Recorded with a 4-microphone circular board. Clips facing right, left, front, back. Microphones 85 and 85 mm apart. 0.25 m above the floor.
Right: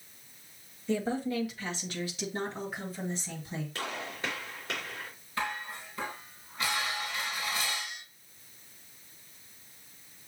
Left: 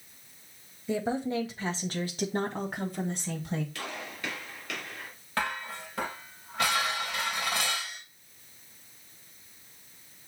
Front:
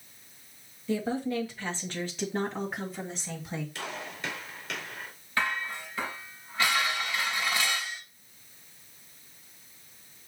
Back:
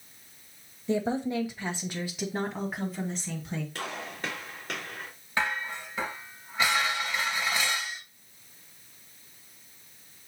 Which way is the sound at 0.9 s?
160° left.